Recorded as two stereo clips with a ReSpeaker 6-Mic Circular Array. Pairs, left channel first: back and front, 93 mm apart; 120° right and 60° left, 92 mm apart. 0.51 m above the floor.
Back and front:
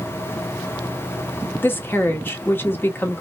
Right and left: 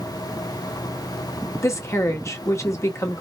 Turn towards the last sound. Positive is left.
turn(degrees=-135)